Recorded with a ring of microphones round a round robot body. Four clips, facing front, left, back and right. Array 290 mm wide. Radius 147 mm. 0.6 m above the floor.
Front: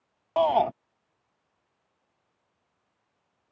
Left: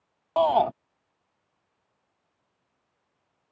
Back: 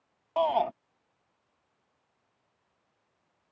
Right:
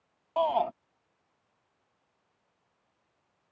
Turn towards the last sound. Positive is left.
turn(degrees=55)